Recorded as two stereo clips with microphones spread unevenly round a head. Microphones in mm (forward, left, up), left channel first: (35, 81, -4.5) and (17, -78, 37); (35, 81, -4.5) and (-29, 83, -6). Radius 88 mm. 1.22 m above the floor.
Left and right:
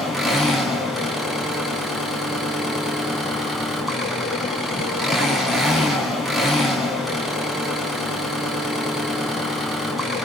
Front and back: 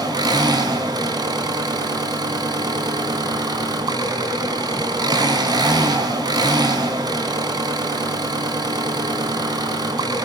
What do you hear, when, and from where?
0.0 s an engine running: 175° left, 5.5 m